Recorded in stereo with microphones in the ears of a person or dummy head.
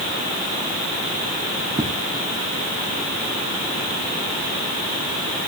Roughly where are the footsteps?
Right.